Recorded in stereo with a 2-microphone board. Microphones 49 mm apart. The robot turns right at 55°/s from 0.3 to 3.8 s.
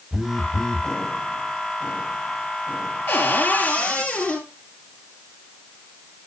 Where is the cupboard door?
110° left, 3 m; by 4.5 s 150° left, 3 m.